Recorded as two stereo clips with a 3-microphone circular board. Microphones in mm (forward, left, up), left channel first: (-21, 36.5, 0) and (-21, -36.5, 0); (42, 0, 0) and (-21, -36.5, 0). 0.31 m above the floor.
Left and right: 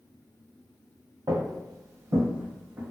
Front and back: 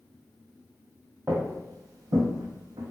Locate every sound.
1.3 s footsteps: 90° right, 0.6 m; by 2.9 s 160° right, 1.0 m